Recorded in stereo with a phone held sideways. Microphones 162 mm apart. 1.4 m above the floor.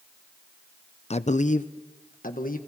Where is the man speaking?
40° left (ahead or behind), 0.5 m; by 2.6 s 60° left (ahead or behind), 1.6 m.